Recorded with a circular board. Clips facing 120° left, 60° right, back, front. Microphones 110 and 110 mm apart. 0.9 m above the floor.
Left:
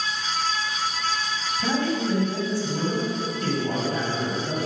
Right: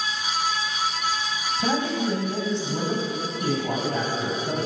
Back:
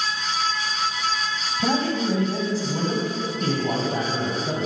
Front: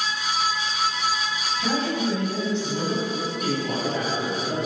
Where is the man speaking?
125° right, 4.5 m.